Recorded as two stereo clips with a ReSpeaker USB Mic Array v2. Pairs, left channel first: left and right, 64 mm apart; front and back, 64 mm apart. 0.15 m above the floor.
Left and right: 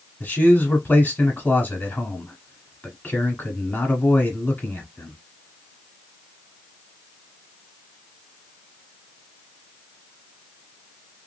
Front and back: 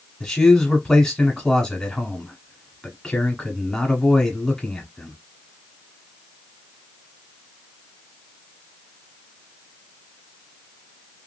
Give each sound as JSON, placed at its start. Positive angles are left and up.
{"t": 0.2, "sound": "a man speaking", "azimuth_deg": 75, "distance_m": 1.1}